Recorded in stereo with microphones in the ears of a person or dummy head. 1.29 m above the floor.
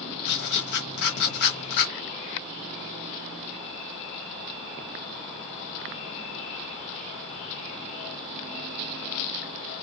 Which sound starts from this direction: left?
Writing, at 0.2 s.